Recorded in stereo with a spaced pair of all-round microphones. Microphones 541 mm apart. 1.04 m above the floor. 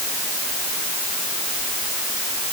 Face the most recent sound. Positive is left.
No sound to turn to.